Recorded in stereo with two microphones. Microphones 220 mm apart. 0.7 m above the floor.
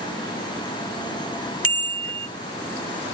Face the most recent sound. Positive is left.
turn(degrees=-80)